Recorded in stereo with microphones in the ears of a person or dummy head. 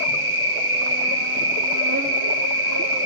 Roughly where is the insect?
Right.